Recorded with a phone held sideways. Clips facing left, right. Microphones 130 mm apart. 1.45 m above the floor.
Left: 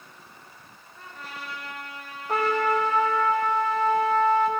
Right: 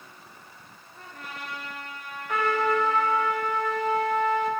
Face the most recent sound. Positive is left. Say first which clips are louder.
# left 1 dB
turn(degrees=35)  # may be behind; listen again after turning